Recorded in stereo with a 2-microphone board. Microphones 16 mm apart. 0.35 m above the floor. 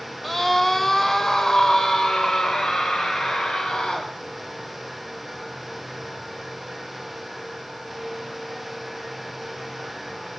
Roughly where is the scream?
Centre.